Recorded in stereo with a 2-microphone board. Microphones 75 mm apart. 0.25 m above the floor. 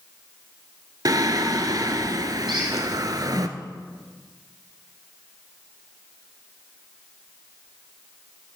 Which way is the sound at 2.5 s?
80° right.